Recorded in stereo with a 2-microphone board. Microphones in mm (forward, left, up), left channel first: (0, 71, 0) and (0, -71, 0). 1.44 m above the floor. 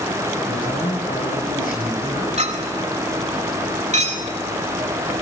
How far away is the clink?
About 2.5 m.